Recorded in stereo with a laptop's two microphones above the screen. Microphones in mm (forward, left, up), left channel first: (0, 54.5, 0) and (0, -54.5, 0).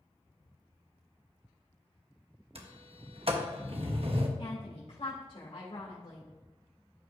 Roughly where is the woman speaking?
Left.